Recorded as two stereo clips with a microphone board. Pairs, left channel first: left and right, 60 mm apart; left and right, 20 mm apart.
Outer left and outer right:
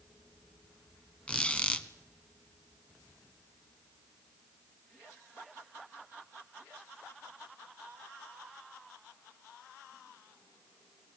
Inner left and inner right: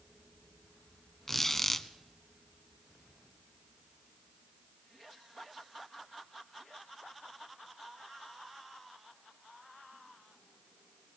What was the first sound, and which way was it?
A squeak, 20° left (ahead or behind).